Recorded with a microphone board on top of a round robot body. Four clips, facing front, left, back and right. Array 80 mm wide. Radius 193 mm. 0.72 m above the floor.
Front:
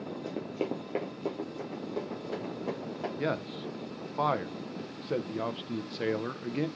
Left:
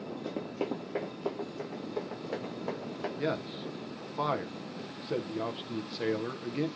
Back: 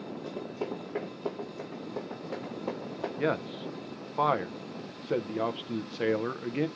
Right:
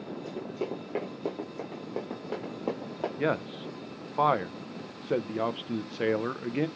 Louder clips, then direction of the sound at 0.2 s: Even, front 2 dB; 50° left.